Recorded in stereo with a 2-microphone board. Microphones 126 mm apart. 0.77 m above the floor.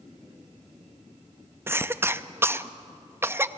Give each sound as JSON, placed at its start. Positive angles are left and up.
{"t": 1.7, "sound": "a cough", "side_deg": -20, "distance_m": 0.6}